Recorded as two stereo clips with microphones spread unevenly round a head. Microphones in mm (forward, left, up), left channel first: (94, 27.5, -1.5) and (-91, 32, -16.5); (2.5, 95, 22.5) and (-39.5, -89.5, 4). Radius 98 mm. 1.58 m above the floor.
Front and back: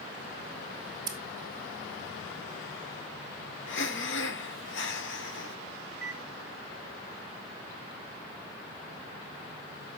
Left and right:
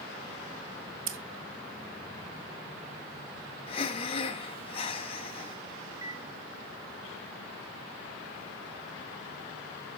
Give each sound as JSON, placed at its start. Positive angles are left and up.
{"t": 1.1, "sound": "scissors", "azimuth_deg": -110, "distance_m": 1.8}
{"t": 3.7, "sound": "breathing", "azimuth_deg": 15, "distance_m": 1.3}
{"t": 5.9, "sound": "a microwave", "azimuth_deg": -95, "distance_m": 3.0}